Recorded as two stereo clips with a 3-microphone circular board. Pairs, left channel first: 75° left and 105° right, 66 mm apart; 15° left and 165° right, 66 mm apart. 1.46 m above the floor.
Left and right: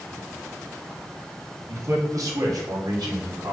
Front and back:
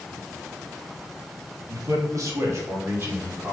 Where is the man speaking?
140° right, 2 m; by 3.5 s 105° right, 4 m.